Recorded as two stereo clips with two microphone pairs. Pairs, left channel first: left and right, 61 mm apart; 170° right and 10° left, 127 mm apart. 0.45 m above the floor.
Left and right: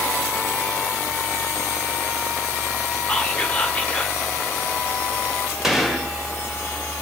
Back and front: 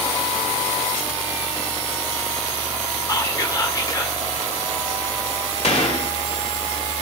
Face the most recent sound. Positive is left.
turn(degrees=-170)